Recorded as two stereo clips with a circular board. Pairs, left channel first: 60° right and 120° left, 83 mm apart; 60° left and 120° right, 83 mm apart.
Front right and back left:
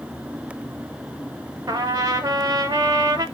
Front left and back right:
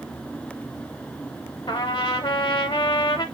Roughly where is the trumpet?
Left.